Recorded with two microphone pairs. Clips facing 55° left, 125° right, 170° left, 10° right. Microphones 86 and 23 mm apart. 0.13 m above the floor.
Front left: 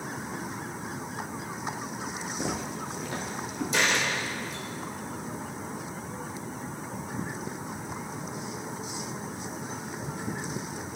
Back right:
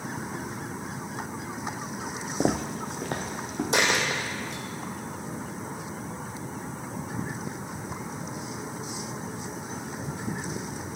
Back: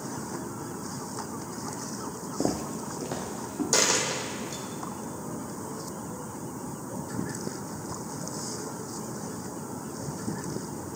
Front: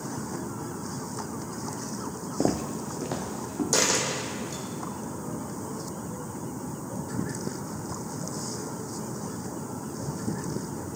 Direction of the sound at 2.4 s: 85° right.